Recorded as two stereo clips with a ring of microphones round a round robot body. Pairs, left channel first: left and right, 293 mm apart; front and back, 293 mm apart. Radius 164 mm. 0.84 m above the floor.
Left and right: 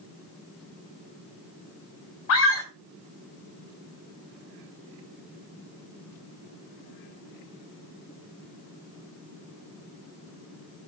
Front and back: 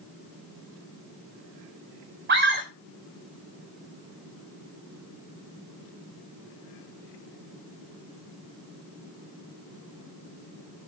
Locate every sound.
2.3 s a scream: 125° left, 3 m